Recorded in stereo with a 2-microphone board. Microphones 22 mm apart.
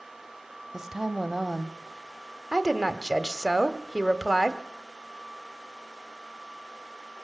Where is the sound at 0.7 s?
20° right (ahead or behind), 1.2 m.